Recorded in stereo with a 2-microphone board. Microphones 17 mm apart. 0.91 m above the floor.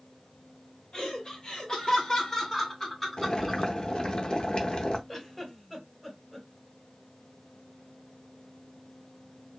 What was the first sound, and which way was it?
Laughter, 45° left (ahead or behind).